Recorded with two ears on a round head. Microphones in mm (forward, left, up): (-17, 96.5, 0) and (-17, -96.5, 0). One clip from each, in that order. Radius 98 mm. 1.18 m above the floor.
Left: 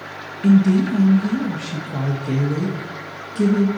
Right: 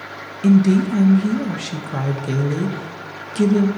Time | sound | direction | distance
0.4 | a woman speaking | 30° right (ahead or behind) | 0.6 m